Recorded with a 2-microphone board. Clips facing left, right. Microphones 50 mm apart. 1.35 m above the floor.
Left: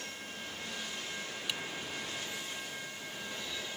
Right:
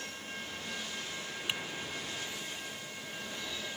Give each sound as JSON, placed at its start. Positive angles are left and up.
{"t": 1.5, "sound": "typing on a keyboard", "side_deg": -30}